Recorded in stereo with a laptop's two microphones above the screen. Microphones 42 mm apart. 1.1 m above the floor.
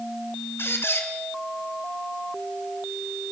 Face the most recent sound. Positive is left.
turn(degrees=70)  # may be behind; listen again after turning